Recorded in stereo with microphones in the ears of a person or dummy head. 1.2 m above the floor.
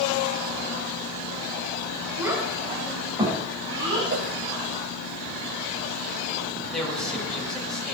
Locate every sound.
2.2 s a child speaking: 15° right (ahead or behind), 4.5 m; by 4.0 s 25° right (ahead or behind), 6 m
4.1 s a whoosh: 60° right (ahead or behind), 2 m
6.7 s a man speaking: 10° left (ahead or behind), 7 m